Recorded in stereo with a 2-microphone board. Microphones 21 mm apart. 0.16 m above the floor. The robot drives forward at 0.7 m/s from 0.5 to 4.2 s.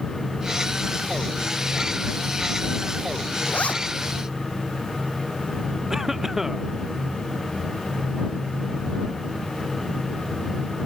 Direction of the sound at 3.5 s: 80° left.